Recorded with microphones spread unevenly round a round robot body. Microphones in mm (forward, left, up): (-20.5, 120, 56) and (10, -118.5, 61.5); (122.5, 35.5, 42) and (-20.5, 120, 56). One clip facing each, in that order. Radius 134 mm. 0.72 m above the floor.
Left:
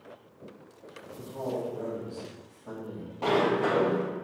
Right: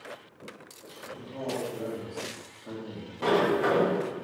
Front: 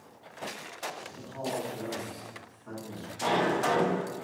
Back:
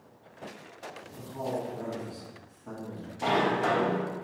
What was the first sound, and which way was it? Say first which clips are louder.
A man speaking: left 1 dB, back 2 dB; 150° right.